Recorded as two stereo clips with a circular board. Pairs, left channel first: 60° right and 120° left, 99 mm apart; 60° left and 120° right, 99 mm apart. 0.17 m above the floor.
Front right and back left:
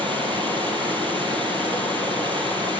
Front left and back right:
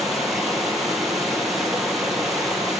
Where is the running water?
150° left, 4.5 m.